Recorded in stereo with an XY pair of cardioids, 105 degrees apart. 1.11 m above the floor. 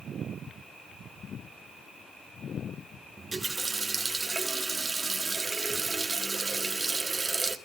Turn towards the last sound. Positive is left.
turn(degrees=-20)